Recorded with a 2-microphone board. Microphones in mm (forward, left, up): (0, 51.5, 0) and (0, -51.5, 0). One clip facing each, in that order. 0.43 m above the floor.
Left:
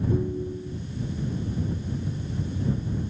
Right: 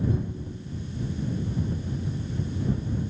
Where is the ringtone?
45° left (ahead or behind).